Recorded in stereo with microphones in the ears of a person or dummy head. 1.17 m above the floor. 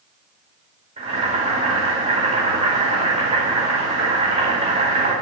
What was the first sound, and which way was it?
Boiling, 40° right (ahead or behind).